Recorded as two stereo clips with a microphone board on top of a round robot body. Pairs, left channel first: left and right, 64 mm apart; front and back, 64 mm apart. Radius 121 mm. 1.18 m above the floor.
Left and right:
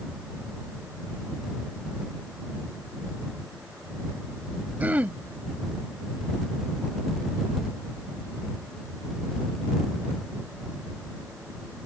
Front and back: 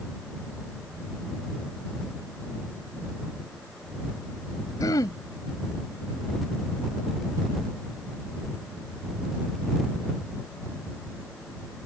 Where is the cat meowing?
No cat meowing in this recording.